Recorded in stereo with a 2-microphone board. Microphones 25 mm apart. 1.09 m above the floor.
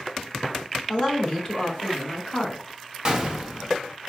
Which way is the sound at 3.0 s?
35° right (ahead or behind).